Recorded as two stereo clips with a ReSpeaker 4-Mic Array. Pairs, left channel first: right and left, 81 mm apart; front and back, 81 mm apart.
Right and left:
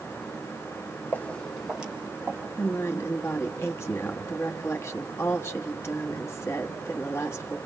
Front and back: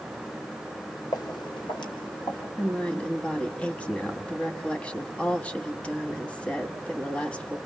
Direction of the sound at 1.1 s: 25° right.